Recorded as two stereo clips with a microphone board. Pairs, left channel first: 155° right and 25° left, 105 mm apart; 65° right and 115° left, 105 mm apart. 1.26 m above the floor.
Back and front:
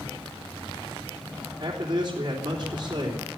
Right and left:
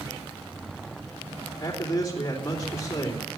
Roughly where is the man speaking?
Ahead right.